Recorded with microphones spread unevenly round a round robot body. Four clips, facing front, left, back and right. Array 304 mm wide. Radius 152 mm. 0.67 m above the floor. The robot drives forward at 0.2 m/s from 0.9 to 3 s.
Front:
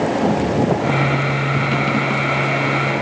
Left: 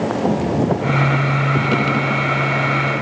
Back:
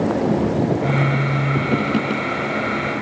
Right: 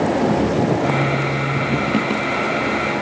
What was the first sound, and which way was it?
Only background noise.